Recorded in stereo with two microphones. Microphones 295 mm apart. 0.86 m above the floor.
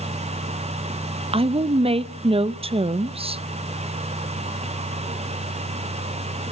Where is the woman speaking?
20° right (ahead or behind), 0.5 m.